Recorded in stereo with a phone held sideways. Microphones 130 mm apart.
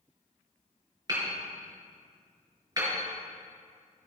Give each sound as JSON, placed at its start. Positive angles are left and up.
{"t": 1.1, "sound": "hammering", "side_deg": -30, "distance_m": 5.5}